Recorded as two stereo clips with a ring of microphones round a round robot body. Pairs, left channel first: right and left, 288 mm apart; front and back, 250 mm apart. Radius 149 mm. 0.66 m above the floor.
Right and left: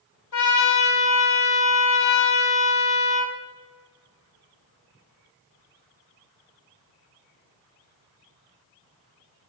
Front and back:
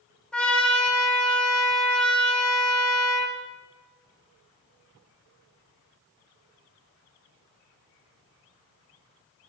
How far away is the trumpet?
About 2 m.